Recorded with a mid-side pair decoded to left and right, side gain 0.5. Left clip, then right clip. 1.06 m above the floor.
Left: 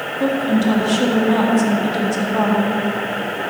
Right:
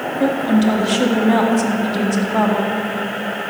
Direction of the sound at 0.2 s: 15° right.